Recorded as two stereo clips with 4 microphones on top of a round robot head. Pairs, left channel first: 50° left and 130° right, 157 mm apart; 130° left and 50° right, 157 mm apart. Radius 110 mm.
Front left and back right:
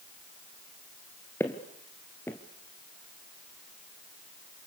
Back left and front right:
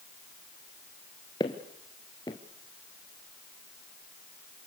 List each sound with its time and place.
1.4 s footsteps: 110° left, 1.3 m